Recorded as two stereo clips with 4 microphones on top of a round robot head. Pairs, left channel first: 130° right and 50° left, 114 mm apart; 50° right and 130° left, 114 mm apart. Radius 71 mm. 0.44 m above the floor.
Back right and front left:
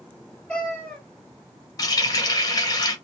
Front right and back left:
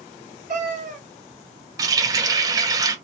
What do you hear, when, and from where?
0.5 s a cat meowing: 145° left, 1.0 m
1.8 s a running tap: straight behind, 0.9 m